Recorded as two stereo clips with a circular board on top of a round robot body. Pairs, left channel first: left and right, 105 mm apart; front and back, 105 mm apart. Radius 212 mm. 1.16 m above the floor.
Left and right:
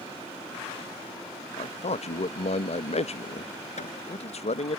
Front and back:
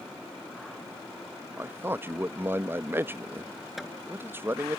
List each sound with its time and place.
1.6 s a man speaking: 110° left
3.8 s hammering: 90° left